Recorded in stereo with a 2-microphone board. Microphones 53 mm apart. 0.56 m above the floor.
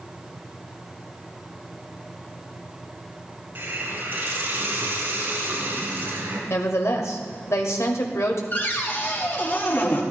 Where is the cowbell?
No cowbell in this recording.